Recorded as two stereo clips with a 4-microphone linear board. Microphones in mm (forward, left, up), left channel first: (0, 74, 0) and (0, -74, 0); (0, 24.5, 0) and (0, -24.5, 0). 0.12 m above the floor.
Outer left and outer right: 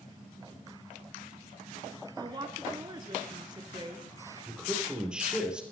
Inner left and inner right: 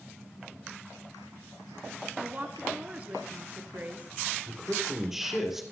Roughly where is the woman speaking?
Right.